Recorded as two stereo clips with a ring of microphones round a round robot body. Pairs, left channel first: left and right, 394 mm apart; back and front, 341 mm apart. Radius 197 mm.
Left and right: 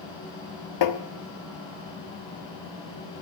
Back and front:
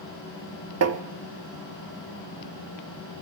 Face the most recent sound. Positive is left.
turn(degrees=45)